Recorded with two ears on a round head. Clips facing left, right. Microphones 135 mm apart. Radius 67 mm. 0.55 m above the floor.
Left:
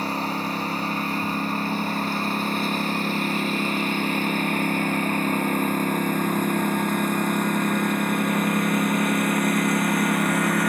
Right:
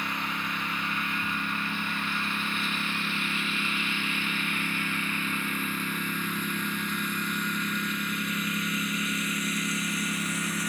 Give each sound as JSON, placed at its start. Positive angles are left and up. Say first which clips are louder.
{"t": 0.0, "sound": "a lawn mower", "louder": "left 8 dB", "side_deg": 30}